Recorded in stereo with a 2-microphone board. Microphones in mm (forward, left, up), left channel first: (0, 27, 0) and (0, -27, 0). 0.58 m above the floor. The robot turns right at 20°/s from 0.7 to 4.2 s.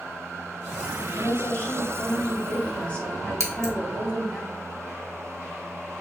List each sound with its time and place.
1.1 s a woman speaking: 100° left, 1.0 m; by 4.4 s 160° left, 1.0 m
3.4 s scissors: 65° right (ahead or behind), 0.9 m; by 3.7 s 60° right (ahead or behind), 0.9 m